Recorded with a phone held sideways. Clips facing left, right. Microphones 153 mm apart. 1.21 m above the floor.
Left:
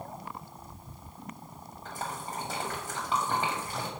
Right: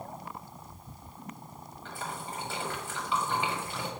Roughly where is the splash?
Left.